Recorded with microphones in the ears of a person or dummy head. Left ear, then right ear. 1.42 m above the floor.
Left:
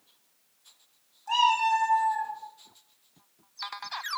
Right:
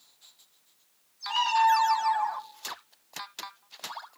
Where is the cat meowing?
45° left (ahead or behind), 2 m.